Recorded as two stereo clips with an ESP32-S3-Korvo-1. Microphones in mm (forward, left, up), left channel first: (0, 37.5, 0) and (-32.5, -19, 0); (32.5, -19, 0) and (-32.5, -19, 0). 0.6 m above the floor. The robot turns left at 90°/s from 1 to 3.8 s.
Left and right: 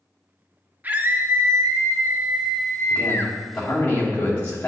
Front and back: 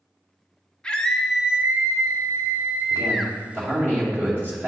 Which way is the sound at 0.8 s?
70° right.